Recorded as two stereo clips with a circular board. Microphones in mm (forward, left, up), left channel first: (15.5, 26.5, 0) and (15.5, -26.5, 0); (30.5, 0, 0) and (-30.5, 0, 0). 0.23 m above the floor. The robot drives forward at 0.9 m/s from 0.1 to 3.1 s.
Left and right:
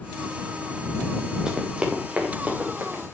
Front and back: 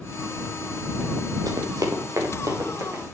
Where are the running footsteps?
165° right, 3 m; by 3.0 s 150° right, 5.5 m.